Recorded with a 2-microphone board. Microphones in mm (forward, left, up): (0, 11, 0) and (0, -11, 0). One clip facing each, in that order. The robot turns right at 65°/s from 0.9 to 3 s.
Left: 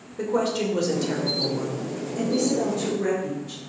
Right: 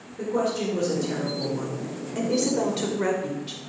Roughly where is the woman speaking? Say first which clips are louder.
Left 2 dB; behind left.